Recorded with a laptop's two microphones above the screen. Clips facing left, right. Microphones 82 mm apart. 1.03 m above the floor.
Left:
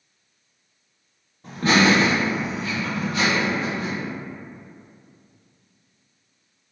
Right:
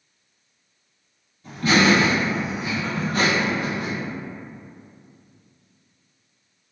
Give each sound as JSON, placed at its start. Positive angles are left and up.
{"t": 1.4, "sound": "laughter", "side_deg": 45, "distance_m": 0.8}